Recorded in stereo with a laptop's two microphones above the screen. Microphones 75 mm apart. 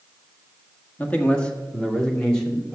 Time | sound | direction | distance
1.0 | a man speaking | 20° left (ahead or behind) | 1.6 m